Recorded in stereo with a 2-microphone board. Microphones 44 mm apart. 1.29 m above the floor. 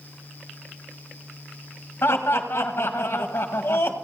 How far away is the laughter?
About 1.4 m.